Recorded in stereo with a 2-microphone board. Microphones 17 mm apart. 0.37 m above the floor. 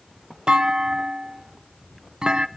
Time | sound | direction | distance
0.5 | a clunk | 55° right (ahead or behind) | 0.5 m